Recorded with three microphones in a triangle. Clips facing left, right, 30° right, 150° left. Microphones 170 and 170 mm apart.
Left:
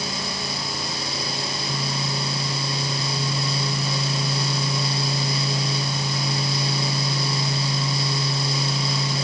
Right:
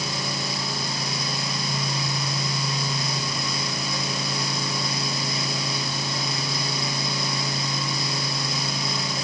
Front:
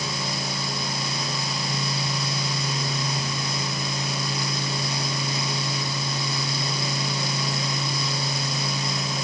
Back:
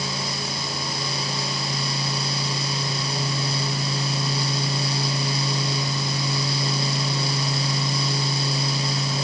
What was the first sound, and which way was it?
Only background noise.